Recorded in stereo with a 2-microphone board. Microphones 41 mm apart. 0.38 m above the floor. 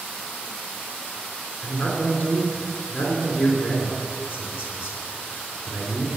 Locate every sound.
1.6 s a man speaking: 55° left (ahead or behind), 3.5 m